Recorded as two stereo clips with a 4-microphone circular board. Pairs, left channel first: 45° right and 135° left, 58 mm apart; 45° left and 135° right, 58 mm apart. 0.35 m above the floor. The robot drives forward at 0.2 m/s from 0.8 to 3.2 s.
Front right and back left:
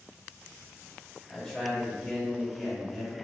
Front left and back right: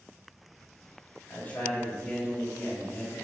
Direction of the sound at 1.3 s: 40° left.